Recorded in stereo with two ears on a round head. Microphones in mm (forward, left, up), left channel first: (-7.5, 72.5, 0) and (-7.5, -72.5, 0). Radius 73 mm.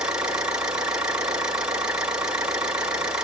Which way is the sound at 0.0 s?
5° right (ahead or behind).